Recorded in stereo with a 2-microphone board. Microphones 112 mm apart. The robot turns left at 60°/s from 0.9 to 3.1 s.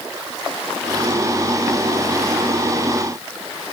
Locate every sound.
Only background noise.